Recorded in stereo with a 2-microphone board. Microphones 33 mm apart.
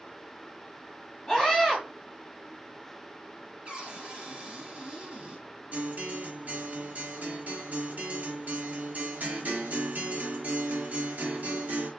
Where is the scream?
10° left (ahead or behind), 1.2 m.